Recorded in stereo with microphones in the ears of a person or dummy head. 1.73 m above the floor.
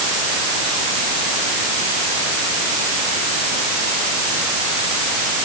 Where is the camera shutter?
No camera shutter in this recording.